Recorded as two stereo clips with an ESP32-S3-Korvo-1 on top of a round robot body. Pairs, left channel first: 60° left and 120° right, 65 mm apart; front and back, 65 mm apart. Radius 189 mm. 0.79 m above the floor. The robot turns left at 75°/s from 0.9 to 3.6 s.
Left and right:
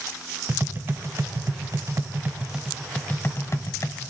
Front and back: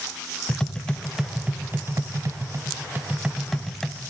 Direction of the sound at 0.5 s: 75° right.